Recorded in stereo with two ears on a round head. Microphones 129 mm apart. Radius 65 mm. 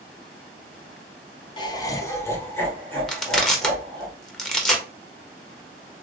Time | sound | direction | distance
1.6 | laughter | 30° left (ahead or behind) | 0.6 m
3.1 | crushing | 5° left (ahead or behind) | 0.7 m